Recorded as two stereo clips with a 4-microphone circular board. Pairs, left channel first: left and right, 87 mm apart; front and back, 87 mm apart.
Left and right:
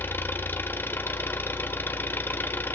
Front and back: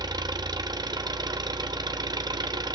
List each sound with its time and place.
0.0 s an engine running: 150° left, 0.9 m